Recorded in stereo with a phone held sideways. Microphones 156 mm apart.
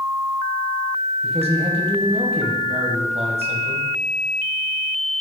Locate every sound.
1.2 s a man speaking: 40° right (ahead or behind), 1.2 m